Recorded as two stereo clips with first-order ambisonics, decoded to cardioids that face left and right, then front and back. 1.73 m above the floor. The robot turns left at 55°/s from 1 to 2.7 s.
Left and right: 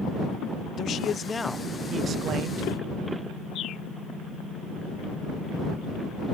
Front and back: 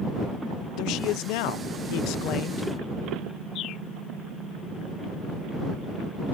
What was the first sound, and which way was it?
A man speaking, 35° left.